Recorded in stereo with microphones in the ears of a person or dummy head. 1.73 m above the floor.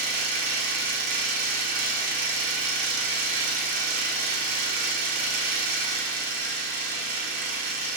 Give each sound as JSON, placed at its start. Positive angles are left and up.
{"t": 0.0, "sound": "an engine running", "side_deg": -45, "distance_m": 2.0}